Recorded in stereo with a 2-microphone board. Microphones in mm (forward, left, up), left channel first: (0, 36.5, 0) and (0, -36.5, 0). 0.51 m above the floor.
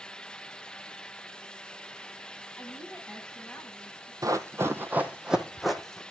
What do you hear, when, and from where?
2.6 s a woman speaking: centre (ahead or behind), 5 m
4.2 s running footsteps: 50° right (ahead or behind), 1.0 m; by 6.0 s 5° left (ahead or behind), 1.6 m